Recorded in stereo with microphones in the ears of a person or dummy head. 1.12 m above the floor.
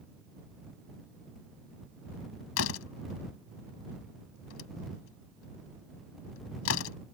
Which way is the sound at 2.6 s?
75° left (ahead or behind).